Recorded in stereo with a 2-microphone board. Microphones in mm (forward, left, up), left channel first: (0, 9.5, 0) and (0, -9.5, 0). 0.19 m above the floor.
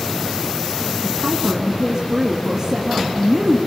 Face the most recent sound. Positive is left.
turn(degrees=-40)  # may be behind; listen again after turning